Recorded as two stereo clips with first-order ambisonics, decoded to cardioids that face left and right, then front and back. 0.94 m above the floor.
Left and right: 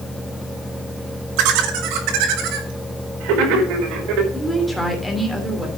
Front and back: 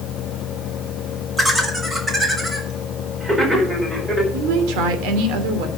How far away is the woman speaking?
About 2.5 m.